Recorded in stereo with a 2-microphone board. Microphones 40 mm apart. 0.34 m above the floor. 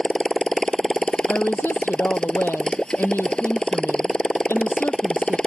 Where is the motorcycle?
20° left (ahead or behind).